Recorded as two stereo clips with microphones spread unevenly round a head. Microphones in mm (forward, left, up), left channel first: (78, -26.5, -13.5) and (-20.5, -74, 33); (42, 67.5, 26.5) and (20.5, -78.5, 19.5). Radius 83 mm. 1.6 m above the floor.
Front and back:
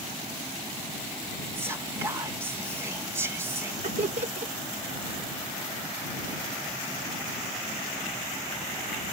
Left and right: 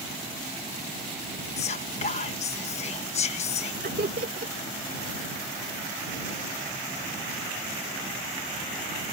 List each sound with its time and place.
1.6 s whispering: 135° left
3.8 s laughter: 140° right